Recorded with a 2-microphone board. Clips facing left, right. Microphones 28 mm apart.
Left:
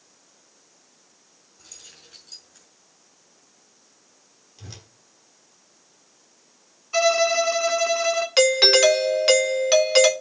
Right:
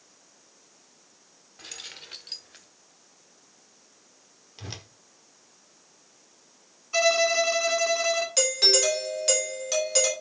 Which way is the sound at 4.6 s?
35° right (ahead or behind).